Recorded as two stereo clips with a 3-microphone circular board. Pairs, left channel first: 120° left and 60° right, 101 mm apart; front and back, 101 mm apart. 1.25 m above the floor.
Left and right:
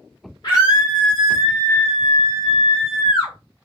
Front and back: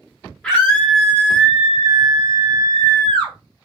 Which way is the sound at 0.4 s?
80° left.